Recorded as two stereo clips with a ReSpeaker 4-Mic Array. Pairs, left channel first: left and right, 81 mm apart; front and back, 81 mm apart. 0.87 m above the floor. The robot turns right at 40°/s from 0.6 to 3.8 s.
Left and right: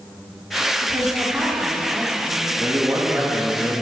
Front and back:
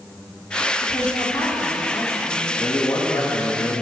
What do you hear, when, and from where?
0.8 s a woman speaking: 55° right, 1.9 m; by 2.5 s 15° left, 1.9 m
2.6 s a man speaking: 40° right, 1.0 m; by 3.8 s 5° left, 1.0 m